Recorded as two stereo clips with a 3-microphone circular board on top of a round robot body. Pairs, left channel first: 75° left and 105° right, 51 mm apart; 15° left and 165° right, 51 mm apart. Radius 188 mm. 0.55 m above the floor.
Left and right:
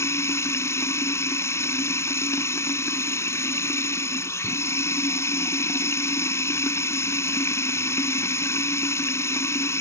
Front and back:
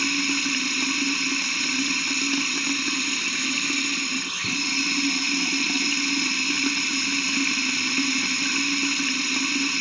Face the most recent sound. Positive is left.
turn(degrees=105)